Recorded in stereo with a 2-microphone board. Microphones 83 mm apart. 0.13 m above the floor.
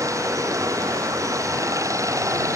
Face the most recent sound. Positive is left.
turn(degrees=-40)  # may be behind; listen again after turning